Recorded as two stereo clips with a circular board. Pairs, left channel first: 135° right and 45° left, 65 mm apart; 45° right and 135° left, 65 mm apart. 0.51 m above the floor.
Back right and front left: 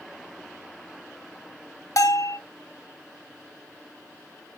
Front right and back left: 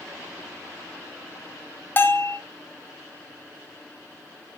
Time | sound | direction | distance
2.0 | a bell | 100° right | 0.6 m